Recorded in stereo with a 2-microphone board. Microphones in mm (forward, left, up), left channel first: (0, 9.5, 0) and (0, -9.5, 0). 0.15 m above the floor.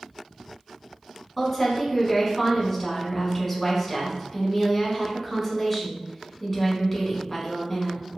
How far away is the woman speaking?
About 1.1 m.